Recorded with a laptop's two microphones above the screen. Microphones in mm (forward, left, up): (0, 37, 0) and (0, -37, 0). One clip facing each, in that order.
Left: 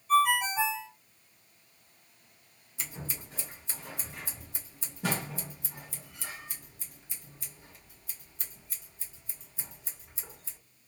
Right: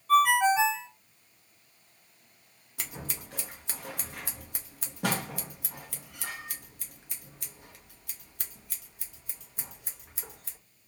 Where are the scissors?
70° right (ahead or behind), 0.7 m.